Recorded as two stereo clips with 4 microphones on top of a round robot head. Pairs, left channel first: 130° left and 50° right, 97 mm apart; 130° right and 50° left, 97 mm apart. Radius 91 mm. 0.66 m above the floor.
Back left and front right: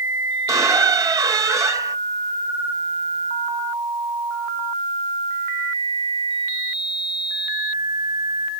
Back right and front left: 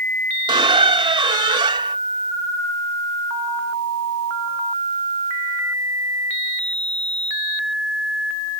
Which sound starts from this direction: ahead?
A squeak, at 0.5 s.